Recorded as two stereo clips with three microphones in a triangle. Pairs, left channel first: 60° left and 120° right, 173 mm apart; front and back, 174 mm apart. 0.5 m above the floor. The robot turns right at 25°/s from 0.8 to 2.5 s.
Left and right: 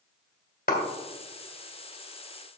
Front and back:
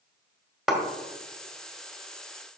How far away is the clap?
About 1.7 m.